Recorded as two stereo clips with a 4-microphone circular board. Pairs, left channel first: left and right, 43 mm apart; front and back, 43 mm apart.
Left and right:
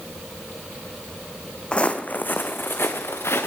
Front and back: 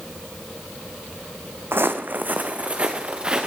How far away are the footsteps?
About 1.1 m.